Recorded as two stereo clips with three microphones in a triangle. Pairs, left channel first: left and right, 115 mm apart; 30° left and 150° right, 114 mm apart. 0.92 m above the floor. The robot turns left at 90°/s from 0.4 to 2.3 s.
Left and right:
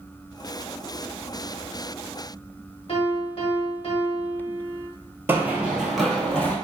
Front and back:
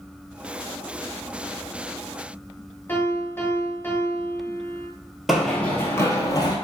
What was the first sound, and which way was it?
A piano, 95° left.